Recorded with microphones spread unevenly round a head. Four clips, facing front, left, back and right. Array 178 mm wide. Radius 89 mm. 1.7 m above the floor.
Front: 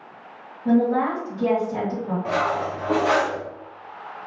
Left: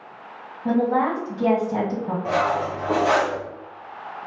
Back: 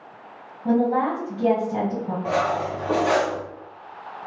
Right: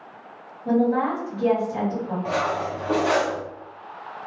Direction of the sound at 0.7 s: 120° left.